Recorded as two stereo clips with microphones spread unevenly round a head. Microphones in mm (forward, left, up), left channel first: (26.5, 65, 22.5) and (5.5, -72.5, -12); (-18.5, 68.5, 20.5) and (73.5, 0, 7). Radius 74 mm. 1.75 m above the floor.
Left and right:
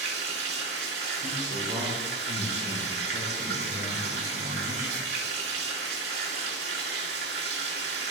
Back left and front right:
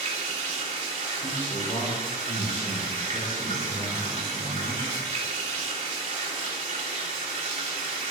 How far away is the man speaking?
About 6.5 m.